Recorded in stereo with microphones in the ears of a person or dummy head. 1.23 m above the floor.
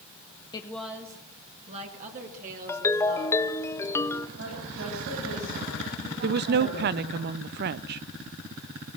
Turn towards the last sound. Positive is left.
turn(degrees=-50)  # may be behind; listen again after turning